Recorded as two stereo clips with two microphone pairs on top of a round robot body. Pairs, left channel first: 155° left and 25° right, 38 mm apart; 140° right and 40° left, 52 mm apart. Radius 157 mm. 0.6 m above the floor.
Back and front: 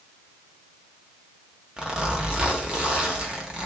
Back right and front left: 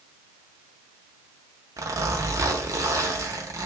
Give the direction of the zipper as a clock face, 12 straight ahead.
10 o'clock.